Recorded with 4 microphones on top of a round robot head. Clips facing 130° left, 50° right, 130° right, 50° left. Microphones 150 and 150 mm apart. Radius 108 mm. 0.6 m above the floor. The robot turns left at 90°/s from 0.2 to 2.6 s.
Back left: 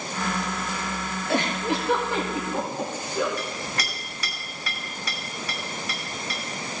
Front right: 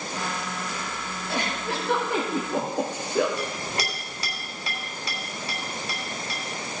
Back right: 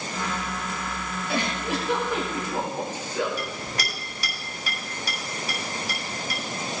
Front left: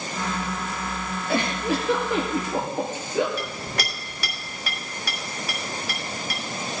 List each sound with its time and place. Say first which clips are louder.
1.3 s a giggle: back left 5 dB, front left 4 dB; 100° left, 3.5 m; by 3.3 s 20° right, 3.5 m
3.4 s a clink: front right 2 dB, front left 1 dB; 15° left, 3 m